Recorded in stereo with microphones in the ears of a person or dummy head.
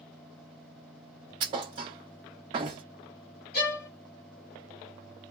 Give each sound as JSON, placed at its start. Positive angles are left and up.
{"t": 1.4, "sound": "a thud", "side_deg": -20, "distance_m": 0.7}
{"t": 3.5, "sound": "a violin", "side_deg": 50, "distance_m": 1.0}